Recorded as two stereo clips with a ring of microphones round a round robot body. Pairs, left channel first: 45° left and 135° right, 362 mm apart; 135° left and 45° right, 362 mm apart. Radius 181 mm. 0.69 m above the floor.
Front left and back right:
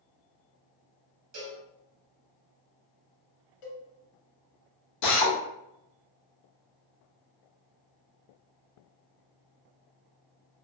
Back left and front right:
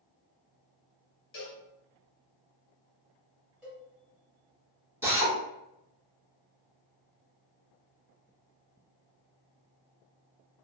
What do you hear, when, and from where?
1.3 s a cowbell: 170° right, 1.1 m
3.6 s a cowbell: 45° left, 1.5 m
5.0 s a drill: 40° left, 0.9 m